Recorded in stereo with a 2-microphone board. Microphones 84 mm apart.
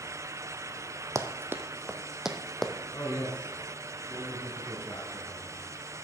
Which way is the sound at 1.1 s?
35° right (ahead or behind).